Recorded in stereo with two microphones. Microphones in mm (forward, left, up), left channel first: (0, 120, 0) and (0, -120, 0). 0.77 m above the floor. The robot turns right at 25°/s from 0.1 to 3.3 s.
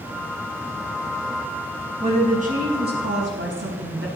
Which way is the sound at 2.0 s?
160° right.